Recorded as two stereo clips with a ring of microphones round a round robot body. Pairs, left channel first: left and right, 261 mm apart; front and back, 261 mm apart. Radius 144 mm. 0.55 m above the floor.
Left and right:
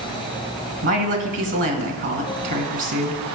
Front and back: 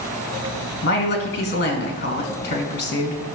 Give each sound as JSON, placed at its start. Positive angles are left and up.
{"t": 0.8, "sound": "a woman speaking", "azimuth_deg": -50, "distance_m": 2.5}